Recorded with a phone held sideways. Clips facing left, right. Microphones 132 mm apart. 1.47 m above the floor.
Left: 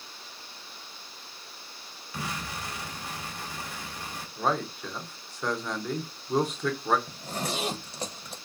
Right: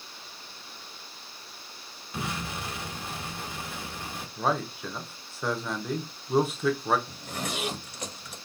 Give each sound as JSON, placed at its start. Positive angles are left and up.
{"t": 2.1, "sound": "an explosion", "side_deg": -25, "distance_m": 1.6}
{"t": 4.4, "sound": "a man speaking", "side_deg": -5, "distance_m": 0.7}
{"t": 7.1, "sound": "a zipper", "side_deg": 35, "distance_m": 0.7}